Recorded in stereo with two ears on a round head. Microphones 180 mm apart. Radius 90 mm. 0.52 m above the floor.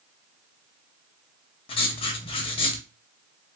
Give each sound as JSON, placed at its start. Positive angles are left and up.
{"t": 1.7, "sound": "writing", "side_deg": 25, "distance_m": 0.6}